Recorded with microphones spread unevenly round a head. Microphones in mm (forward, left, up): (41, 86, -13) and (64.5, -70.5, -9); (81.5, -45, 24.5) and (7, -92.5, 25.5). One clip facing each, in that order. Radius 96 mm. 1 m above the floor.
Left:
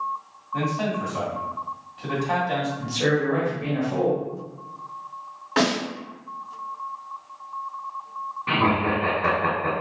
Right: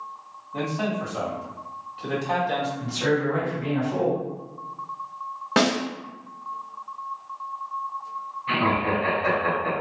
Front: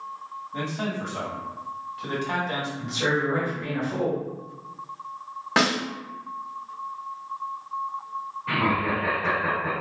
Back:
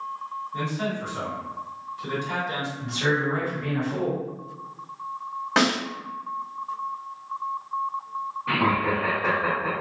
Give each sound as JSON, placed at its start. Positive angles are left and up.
{"t": 0.5, "sound": "a man speaking", "azimuth_deg": 5, "distance_m": 1.9}
{"t": 2.8, "sound": "a man speaking", "azimuth_deg": 90, "distance_m": 1.1}
{"t": 5.6, "sound": "a snare drum", "azimuth_deg": -55, "distance_m": 1.2}
{"t": 8.5, "sound": "laughter", "azimuth_deg": 135, "distance_m": 1.3}